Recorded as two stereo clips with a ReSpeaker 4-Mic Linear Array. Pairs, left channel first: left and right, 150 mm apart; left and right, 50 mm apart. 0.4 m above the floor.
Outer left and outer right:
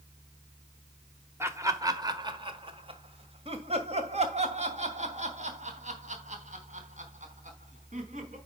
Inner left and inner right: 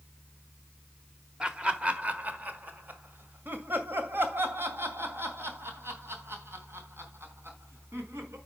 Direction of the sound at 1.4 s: 20° right (ahead or behind).